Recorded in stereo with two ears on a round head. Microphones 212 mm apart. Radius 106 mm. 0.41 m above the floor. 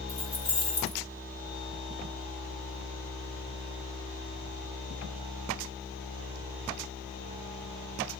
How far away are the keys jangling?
About 3 m.